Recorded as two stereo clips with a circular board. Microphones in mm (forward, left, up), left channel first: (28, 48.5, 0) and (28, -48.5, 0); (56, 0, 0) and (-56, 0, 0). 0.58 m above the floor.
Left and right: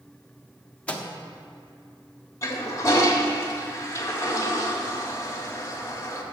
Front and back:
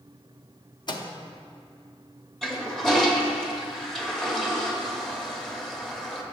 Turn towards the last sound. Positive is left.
turn(degrees=80)